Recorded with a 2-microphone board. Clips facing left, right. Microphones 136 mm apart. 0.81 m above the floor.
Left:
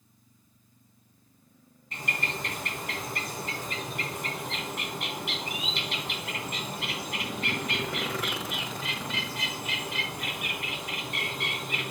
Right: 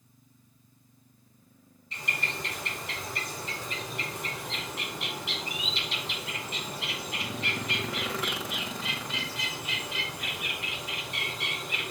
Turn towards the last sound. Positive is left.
turn(degrees=55)  # may be behind; listen again after turning